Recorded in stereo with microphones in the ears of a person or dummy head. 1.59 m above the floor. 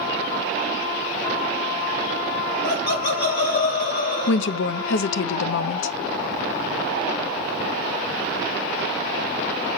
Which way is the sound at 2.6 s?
60° left (ahead or behind).